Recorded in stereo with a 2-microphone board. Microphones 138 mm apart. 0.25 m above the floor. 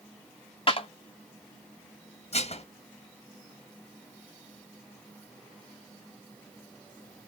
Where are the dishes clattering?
50° left (ahead or behind), 1.3 m.